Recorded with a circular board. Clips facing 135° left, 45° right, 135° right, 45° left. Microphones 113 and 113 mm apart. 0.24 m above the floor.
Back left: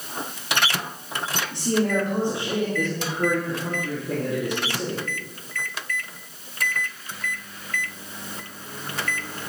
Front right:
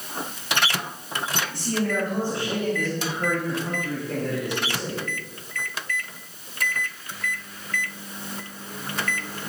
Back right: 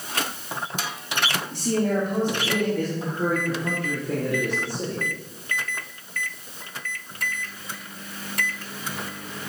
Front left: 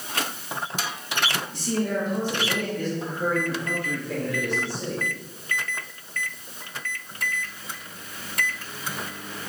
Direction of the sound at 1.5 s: 160° right.